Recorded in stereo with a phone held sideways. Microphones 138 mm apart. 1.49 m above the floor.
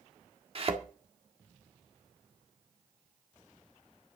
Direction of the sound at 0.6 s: 45° right (ahead or behind).